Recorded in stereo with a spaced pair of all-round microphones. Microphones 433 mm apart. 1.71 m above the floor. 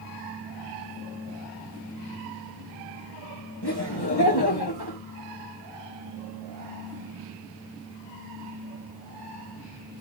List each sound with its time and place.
3.6 s laughter: 60° left (ahead or behind), 2.5 m